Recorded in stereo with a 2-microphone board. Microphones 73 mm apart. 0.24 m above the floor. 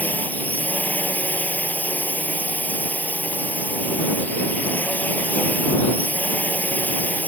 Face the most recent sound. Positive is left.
turn(degrees=25)  # may be behind; listen again after turning